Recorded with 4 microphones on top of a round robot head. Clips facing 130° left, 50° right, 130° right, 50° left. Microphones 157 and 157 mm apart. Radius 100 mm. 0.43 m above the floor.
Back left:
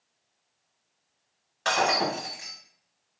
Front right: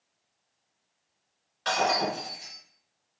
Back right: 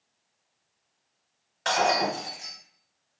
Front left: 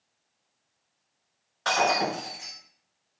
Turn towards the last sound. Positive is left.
turn(degrees=160)